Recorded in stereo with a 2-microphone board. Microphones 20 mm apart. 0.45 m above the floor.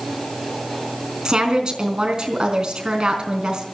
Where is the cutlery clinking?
I don't hear cutlery clinking.